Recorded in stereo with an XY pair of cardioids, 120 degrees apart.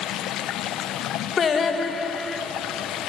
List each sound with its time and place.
0.0 s running water: 65° left, 1.3 m
1.4 s singing: 40° left, 2.5 m